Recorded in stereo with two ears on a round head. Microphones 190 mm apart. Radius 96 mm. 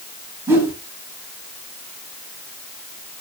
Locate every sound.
0.5 s a whoosh: 10° right (ahead or behind), 3 m